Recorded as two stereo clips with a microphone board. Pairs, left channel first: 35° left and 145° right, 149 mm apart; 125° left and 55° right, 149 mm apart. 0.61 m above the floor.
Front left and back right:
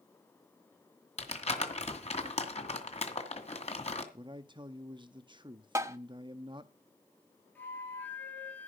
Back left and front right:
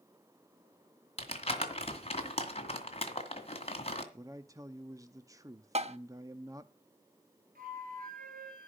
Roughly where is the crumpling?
Left.